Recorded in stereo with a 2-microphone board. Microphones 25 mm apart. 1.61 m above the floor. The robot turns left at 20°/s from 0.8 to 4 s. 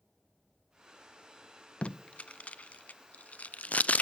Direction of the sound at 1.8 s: 55° left (ahead or behind).